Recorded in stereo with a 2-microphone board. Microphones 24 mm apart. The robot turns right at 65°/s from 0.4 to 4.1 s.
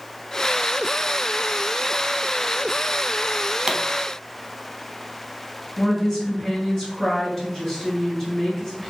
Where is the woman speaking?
25° left (ahead or behind), 2.0 m.